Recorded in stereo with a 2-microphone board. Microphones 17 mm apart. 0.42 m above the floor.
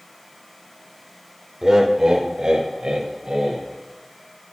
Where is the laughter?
30° right (ahead or behind), 1.1 m; by 3.6 s 65° right (ahead or behind), 2 m.